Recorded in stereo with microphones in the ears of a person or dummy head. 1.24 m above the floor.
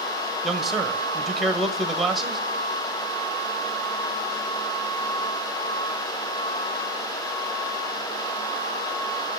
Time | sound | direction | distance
0.4 | a man speaking | centre (ahead or behind) | 0.9 m